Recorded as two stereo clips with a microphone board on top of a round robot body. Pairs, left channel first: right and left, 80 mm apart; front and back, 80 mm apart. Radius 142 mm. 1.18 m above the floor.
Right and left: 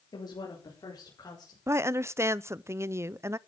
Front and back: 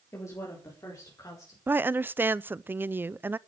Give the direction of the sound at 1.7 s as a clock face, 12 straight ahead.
8 o'clock.